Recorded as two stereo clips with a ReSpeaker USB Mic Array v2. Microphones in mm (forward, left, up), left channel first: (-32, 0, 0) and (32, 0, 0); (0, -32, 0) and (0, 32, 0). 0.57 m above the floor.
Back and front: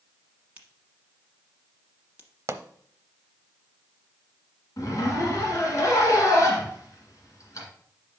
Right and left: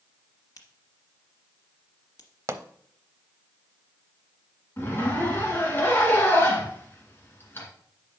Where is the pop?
45° left, 0.6 m.